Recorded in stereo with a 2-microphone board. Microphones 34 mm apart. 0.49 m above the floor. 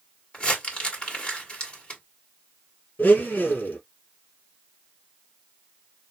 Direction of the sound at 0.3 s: 30° left (ahead or behind).